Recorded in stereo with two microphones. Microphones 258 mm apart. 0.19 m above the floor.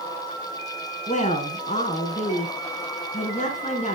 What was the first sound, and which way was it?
A woman speaking, 30° left (ahead or behind).